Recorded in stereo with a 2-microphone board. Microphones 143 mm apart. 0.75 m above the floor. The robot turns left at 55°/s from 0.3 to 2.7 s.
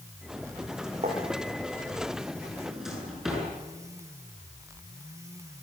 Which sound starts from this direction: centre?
A drawer, at 2.6 s.